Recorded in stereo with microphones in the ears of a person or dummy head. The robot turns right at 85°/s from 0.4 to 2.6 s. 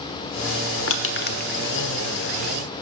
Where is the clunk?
I don't hear a clunk.